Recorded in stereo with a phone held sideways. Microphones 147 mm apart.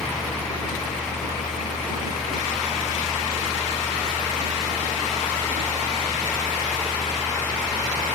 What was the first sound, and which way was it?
A fan, centre (ahead or behind).